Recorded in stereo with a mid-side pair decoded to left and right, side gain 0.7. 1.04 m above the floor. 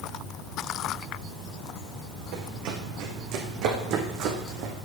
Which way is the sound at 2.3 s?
70° right.